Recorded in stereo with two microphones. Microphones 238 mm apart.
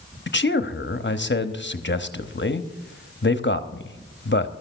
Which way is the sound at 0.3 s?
50° left (ahead or behind).